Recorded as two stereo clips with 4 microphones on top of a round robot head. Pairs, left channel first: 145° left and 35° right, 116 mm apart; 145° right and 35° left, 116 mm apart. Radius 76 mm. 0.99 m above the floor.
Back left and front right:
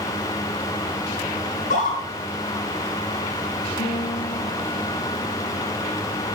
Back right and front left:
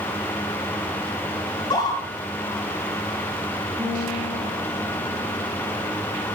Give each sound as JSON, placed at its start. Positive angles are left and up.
{"t": 1.5, "sound": "a scream", "azimuth_deg": 155, "distance_m": 9.5}
{"t": 3.8, "sound": "a guitar", "azimuth_deg": 105, "distance_m": 7.0}